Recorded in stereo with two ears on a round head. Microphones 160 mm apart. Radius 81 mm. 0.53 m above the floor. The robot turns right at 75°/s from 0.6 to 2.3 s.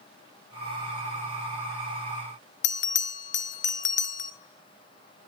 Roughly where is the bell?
Left.